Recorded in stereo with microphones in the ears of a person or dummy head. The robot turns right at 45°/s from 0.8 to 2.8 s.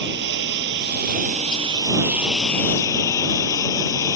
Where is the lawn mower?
70° right; by 4.2 s 20° left.